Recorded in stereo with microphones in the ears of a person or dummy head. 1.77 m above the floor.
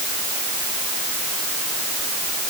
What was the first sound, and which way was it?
Only background noise.